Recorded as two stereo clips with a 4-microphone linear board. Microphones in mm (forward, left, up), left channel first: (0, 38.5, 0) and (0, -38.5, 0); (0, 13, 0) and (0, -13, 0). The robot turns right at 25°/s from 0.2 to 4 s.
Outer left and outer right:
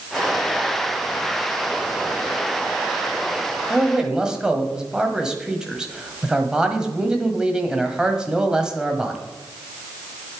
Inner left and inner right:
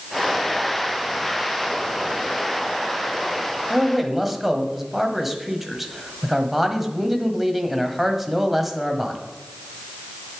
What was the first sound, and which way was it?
A man speaking, 5° right (ahead or behind).